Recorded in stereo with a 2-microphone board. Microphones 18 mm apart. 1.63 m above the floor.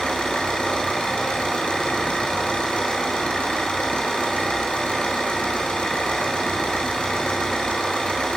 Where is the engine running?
80° left, 6 m.